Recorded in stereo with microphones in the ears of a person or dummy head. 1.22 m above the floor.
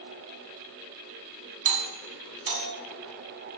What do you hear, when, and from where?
1.6 s a doorbell: 50° right (ahead or behind), 1.4 m